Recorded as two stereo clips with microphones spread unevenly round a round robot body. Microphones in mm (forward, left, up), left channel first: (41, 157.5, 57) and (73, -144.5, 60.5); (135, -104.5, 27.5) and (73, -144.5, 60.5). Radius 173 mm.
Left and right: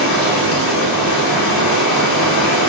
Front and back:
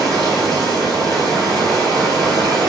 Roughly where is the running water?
Left.